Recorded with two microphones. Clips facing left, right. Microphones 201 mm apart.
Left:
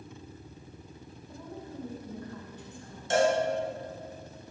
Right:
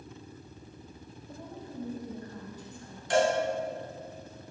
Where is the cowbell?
25° left (ahead or behind), 1.9 m.